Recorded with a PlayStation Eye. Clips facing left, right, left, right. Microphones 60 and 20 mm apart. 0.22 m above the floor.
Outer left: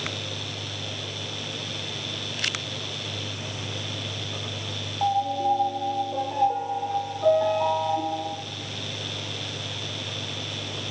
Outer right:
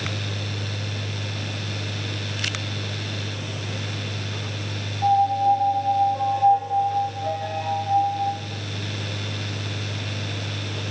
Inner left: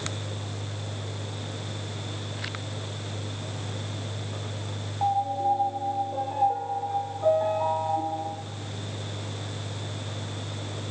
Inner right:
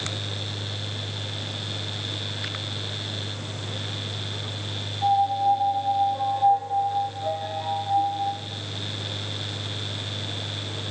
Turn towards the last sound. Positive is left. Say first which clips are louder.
# outer right 5 dB, inner right 4 dB
turn(degrees=85)